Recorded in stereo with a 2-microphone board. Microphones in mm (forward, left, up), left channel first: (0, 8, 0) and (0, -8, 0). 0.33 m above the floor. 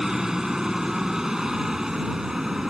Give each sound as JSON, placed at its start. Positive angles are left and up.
{"t": 0.0, "sound": "a helicopter", "side_deg": -45}